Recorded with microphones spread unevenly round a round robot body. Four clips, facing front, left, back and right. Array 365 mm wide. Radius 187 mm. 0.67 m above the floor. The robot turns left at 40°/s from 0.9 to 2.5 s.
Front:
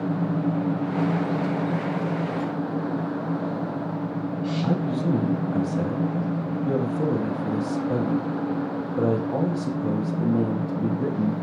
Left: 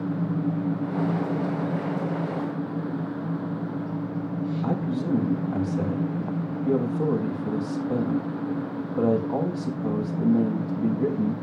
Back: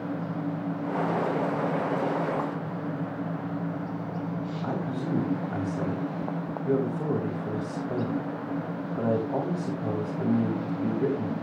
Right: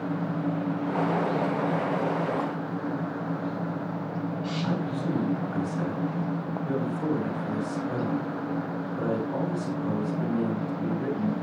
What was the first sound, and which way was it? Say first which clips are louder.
A man speaking: left 2 dB, front 6 dB; 35° left.